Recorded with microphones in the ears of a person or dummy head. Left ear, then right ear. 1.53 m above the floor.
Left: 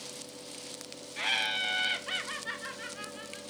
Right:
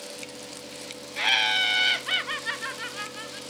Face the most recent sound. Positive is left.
turn(degrees=-30)  # may be behind; listen again after turning